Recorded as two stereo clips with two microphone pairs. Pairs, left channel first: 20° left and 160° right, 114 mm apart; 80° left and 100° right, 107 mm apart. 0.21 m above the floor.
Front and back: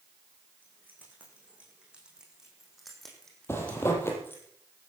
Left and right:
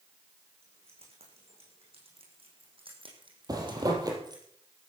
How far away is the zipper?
About 4.5 m.